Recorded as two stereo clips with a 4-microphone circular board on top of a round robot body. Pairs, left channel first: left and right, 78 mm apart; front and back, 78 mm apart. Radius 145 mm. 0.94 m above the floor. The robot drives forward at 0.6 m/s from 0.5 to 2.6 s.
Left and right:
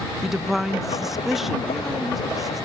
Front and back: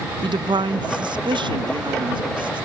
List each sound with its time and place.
0.2 s a woman speaking: straight behind